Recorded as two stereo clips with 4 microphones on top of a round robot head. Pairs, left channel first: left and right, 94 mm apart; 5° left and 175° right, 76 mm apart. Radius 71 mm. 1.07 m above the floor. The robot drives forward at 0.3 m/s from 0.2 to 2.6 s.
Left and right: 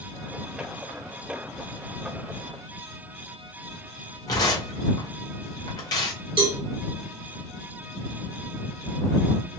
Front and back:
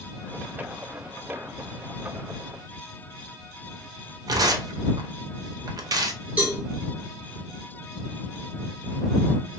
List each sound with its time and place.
4.3 s tearing paper: 150° left, 0.6 m
6.4 s a cowbell: 105° right, 1.2 m